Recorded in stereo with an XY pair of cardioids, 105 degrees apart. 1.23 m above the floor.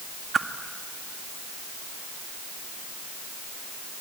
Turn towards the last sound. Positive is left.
turn(degrees=-35)